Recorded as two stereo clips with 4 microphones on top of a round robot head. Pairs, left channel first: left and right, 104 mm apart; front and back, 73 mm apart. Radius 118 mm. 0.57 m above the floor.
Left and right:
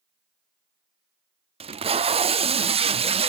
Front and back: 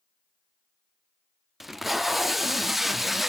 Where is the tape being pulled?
95° right, 0.7 m.